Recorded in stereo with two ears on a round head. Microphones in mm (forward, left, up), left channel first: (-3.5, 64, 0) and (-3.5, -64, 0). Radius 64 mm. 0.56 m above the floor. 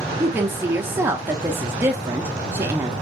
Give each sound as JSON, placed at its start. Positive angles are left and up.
{"t": 0.2, "sound": "a woman speaking", "side_deg": -15, "distance_m": 0.7}